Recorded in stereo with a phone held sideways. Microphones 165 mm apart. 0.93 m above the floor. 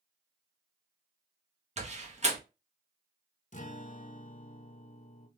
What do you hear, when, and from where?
1.8 s a door slam: 45° right (ahead or behind), 0.8 m
3.5 s a guitar: 50° left (ahead or behind), 0.5 m